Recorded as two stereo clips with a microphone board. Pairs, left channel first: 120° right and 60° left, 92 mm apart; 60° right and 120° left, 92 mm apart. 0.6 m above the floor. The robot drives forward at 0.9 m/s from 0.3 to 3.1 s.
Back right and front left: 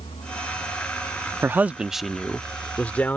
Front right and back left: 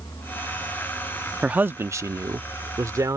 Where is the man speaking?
60° left; by 3.2 s 170° left.